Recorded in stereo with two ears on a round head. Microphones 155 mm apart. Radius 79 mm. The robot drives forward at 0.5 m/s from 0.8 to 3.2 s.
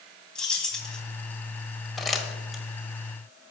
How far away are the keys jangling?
About 2.5 m.